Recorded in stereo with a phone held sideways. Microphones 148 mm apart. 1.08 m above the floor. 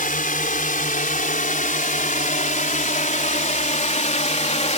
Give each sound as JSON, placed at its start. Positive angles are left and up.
{"t": 0.0, "sound": "a drone", "side_deg": 75}